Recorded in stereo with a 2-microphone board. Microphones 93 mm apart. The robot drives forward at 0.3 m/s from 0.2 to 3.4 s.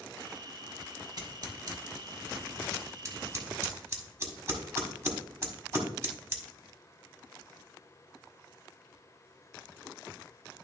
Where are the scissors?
55° right (ahead or behind), 1.0 m; by 6.4 s 35° right (ahead or behind), 1.5 m.